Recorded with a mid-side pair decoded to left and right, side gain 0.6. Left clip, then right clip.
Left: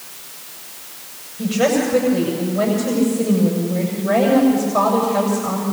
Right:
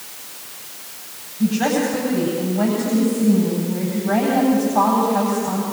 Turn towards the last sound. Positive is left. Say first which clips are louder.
# left 2 dB
turn(degrees=65)